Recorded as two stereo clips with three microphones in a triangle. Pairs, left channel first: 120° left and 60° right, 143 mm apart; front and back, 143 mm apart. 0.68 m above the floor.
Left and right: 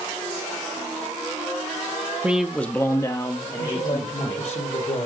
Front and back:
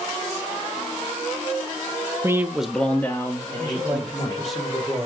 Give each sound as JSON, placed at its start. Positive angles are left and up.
{"t": 2.2, "sound": "a man speaking", "azimuth_deg": -130, "distance_m": 0.8}
{"t": 3.6, "sound": "a man speaking", "azimuth_deg": 90, "distance_m": 2.0}